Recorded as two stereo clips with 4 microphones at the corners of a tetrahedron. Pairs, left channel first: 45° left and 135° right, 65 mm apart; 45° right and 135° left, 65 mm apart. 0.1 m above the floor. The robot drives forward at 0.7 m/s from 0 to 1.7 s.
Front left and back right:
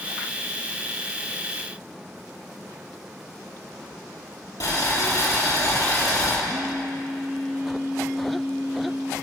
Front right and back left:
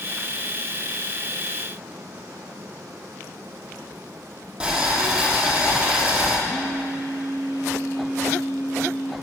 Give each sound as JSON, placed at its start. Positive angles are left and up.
{"t": 4.6, "sound": "boiling", "azimuth_deg": 65, "distance_m": 3.0}
{"t": 6.5, "sound": "a phone buzzing", "azimuth_deg": -70, "distance_m": 2.0}